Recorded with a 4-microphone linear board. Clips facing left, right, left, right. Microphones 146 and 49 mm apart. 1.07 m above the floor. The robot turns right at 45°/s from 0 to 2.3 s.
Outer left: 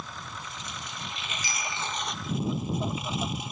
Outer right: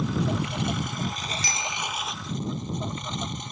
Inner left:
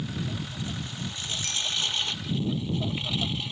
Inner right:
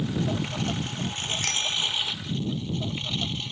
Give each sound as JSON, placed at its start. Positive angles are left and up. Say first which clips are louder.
{"t": 0.0, "sound": "a lawn mower", "louder": "outer right 15 dB, inner right 6 dB", "azimuth_deg": -95}
{"t": 1.4, "sound": "a bicycle bell", "louder": "outer right 3 dB, inner right 2 dB", "side_deg": -85}